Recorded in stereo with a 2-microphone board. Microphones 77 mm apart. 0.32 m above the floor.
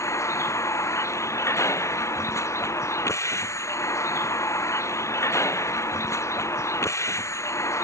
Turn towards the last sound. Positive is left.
turn(degrees=40)  # may be behind; listen again after turning